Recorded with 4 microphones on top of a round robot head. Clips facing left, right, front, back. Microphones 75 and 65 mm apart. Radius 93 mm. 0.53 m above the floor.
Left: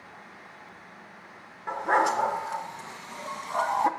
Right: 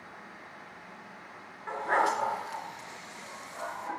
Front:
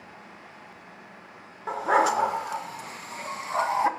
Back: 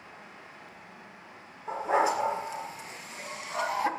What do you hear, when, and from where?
1.7 s a dog barking: 15° left, 3 m; by 3.9 s 70° left, 1.5 m